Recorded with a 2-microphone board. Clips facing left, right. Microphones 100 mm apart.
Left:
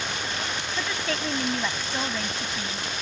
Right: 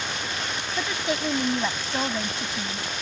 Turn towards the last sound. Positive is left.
turn(degrees=-15)  # may be behind; listen again after turning